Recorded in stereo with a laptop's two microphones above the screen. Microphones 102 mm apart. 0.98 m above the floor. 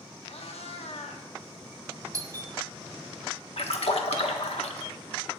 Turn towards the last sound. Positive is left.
turn(degrees=80)